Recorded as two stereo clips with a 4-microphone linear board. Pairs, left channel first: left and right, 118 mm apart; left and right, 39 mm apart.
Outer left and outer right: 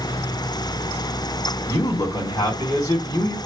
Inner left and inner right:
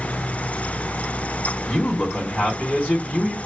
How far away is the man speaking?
About 2.5 m.